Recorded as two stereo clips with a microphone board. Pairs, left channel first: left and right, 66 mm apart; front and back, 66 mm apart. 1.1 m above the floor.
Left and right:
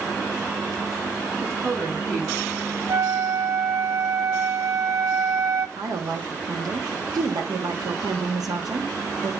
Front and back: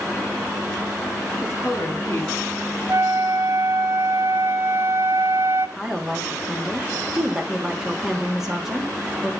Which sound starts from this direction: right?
A woman speaking, at 5.8 s.